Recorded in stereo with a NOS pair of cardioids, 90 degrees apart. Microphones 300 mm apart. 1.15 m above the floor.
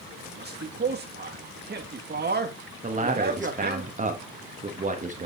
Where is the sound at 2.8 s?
25° right, 1.3 m.